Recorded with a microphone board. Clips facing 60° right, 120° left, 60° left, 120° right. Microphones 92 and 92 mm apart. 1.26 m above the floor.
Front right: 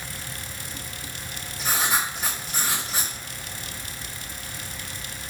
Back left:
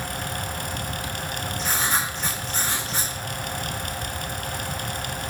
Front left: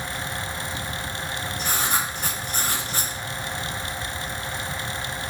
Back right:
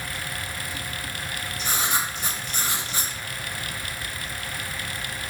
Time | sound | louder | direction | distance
1.6 | writing | front right 1 dB, even | 25° left | 4 m